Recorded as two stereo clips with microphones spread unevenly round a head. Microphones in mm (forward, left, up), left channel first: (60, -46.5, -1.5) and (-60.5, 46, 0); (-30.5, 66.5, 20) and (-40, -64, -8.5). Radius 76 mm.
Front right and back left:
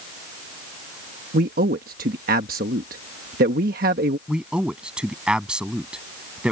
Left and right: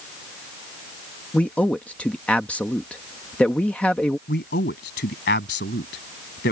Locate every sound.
1.3 s a man speaking: 170° left
4.3 s a man speaking: 60° left